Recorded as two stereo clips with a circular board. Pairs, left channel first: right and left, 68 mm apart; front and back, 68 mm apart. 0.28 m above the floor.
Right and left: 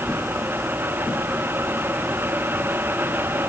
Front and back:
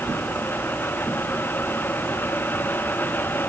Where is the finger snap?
I don't hear a finger snap.